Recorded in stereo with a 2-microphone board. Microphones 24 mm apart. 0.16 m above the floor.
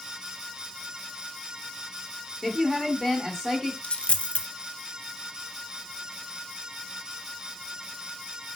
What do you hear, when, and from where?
2.4 s a woman speaking: 25° right (ahead or behind), 1.3 m
3.8 s a dropped coin: 60° left (ahead or behind), 0.6 m